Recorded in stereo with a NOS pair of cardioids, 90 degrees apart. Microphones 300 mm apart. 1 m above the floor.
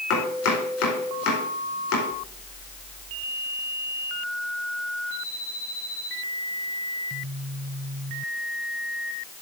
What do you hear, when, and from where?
0.1 s chopping: 55° left, 4.5 m